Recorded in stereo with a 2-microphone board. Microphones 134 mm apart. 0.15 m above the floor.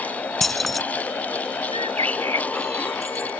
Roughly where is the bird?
Right.